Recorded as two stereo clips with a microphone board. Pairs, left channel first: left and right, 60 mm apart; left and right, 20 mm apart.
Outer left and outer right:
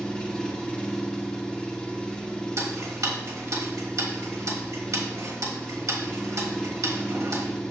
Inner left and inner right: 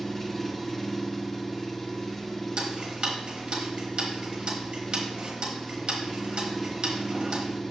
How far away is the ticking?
About 1.3 m.